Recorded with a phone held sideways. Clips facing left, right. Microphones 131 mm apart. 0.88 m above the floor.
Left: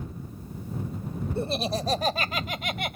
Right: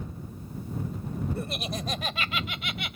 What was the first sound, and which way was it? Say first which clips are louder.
Laughter: left 6 dB; 30° left (ahead or behind).